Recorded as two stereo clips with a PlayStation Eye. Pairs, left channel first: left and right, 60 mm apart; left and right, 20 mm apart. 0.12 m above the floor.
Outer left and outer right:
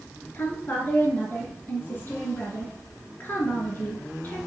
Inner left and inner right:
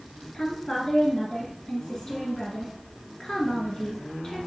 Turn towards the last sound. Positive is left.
turn(degrees=35)  # may be behind; listen again after turning